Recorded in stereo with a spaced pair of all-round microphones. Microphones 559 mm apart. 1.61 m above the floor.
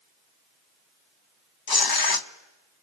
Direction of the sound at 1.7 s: 40° left (ahead or behind).